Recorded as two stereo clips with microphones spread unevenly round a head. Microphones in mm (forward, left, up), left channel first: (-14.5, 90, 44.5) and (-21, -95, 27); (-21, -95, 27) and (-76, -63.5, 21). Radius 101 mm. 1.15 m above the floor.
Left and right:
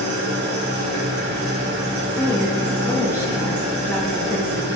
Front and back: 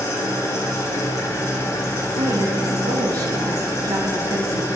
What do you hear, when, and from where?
0.0 s an engine running: 55° right, 1.1 m
2.2 s a woman speaking: 165° left, 0.9 m